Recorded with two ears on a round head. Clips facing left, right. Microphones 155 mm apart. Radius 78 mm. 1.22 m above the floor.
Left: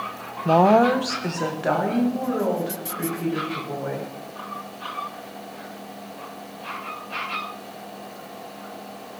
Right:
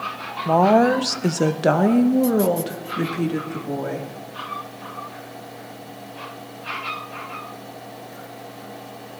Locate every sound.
0.5 s a woman speaking: 15° left (ahead or behind), 0.5 m; by 4.1 s 70° right (ahead or behind), 2.5 m